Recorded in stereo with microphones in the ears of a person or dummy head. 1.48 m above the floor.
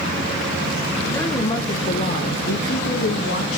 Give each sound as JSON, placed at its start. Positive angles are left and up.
{"t": 1.1, "sound": "a woman speaking", "side_deg": 15, "distance_m": 1.5}